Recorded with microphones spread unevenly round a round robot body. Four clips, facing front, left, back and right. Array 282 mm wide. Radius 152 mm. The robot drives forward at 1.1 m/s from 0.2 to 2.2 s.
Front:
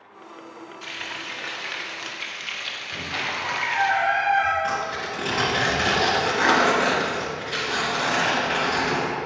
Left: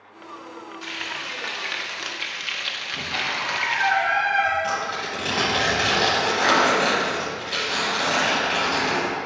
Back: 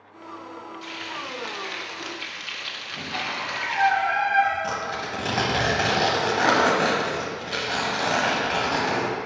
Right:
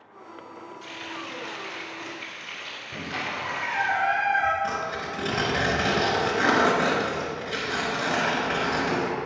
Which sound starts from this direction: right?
A squeak, at 2.9 s.